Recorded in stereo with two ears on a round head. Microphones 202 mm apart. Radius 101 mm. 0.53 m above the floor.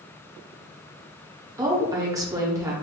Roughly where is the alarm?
No alarm in this recording.